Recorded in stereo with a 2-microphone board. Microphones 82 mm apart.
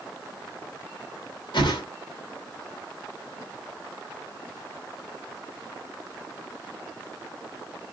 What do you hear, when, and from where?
1.5 s a whoosh: 70° left (ahead or behind), 1.0 m